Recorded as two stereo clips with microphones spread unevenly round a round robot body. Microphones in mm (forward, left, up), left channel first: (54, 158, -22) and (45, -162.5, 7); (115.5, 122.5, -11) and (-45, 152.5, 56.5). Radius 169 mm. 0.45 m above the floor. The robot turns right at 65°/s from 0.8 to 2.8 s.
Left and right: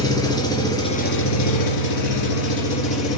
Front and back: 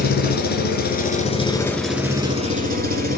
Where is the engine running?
10° left, 3 m; by 3.2 s 140° left, 3 m.